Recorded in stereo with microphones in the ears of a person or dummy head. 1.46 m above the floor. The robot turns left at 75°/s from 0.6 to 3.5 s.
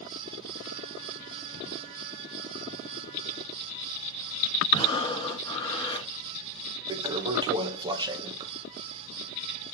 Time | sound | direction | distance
4.7 | breathing | 30° left (ahead or behind) | 1.8 m
6.9 | a toilet flushing | 25° right (ahead or behind) | 1.0 m